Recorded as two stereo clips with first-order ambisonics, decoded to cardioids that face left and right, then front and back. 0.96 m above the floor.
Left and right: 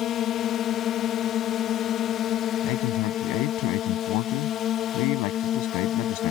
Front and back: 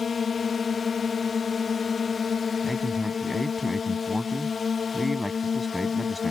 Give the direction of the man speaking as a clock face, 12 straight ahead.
9 o'clock.